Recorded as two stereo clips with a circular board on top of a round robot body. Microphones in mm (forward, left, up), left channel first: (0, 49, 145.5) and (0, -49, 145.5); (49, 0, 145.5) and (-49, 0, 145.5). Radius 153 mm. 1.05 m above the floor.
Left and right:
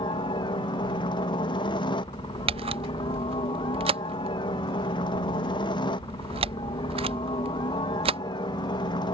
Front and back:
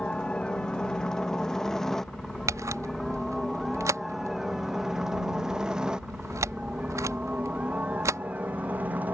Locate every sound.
0.0 s a helicopter: 80° left; by 9.2 s 110° left
2.5 s a camera shutter: 120° right